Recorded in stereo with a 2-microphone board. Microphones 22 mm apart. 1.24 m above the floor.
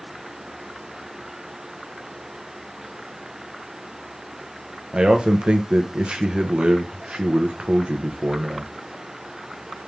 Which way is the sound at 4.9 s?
50° right (ahead or behind).